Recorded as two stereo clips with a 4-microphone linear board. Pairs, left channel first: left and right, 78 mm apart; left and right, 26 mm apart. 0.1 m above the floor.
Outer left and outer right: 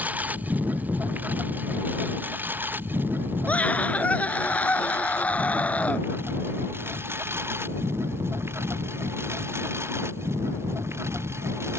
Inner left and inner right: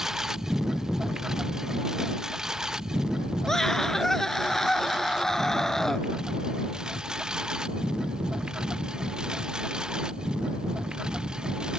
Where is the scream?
20° left (ahead or behind).